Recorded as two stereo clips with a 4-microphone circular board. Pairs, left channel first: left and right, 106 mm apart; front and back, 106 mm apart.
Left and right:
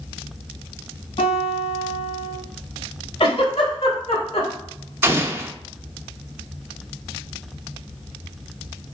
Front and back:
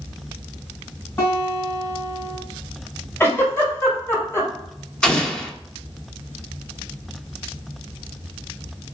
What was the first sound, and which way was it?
A guitar, 70° left.